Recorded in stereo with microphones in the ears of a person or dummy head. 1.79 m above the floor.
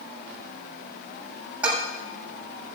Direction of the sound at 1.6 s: 10° right (ahead or behind).